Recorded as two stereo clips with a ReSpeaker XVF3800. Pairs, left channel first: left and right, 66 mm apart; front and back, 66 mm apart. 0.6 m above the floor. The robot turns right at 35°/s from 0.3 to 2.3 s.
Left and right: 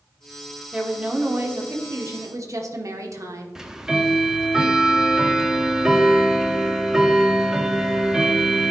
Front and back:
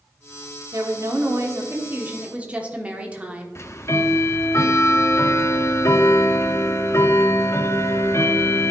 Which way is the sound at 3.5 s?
15° right.